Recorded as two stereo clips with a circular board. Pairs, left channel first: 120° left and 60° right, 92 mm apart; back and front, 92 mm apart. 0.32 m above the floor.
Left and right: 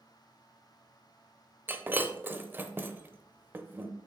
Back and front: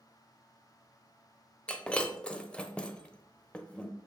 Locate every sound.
1.7 s breaking glass: 110° right, 0.7 m